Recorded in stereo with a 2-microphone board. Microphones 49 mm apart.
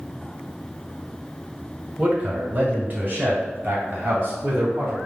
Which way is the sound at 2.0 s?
25° right (ahead or behind).